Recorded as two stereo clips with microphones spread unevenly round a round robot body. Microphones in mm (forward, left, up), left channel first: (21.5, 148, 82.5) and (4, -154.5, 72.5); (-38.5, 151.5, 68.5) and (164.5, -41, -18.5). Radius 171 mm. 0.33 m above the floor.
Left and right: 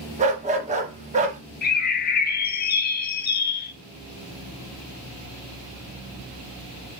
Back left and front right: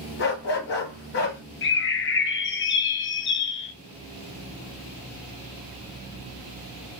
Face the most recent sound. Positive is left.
turn(degrees=95)